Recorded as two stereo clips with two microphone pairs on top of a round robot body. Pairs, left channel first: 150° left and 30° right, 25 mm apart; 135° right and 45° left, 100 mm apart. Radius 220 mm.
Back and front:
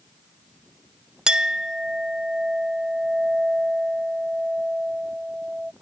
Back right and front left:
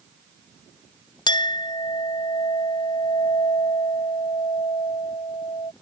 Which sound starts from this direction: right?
A clink, at 1.3 s.